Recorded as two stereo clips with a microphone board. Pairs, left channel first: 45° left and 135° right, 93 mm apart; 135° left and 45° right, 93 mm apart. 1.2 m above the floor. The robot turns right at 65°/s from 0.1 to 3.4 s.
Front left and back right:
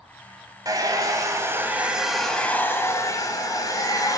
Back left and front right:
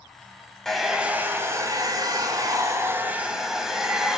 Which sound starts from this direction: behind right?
A hair dryer, at 0.7 s.